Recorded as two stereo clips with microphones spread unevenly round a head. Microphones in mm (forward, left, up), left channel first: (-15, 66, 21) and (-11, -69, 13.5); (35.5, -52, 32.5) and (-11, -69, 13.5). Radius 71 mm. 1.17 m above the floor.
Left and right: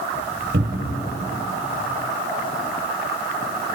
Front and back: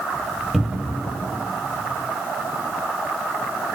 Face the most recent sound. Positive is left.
turn(degrees=-65)